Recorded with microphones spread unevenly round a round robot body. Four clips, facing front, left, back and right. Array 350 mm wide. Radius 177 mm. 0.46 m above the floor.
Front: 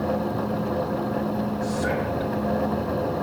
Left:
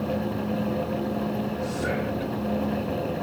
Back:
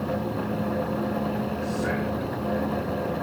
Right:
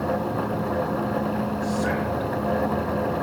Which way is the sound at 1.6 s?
10° left.